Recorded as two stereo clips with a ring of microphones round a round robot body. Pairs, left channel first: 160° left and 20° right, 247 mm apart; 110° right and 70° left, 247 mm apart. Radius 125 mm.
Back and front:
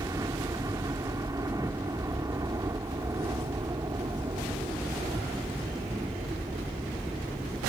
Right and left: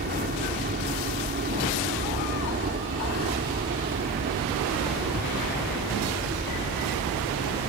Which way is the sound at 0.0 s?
45° left.